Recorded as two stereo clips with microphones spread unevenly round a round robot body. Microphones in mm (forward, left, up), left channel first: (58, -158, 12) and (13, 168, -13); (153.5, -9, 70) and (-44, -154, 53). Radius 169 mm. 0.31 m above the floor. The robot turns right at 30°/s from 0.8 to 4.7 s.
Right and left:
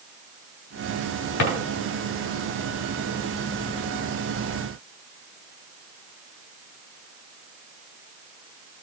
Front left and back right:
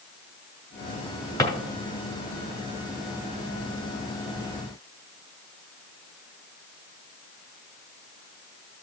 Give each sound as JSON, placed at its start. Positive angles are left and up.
{"t": 1.4, "sound": "a drawer", "azimuth_deg": -40, "distance_m": 2.5}